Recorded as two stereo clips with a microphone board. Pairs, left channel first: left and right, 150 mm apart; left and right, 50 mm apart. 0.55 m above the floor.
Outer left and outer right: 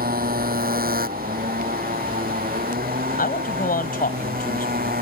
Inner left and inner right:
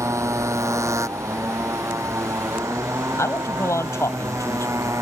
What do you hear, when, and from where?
0.0 s a motorcycle: 75° right (ahead or behind); by 5.0 s 85° right
3.2 s a man speaking: 75° left (ahead or behind)